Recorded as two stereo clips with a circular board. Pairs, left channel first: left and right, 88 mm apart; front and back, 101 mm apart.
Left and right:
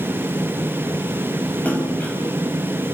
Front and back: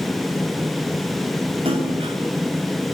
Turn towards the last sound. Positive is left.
turn(degrees=165)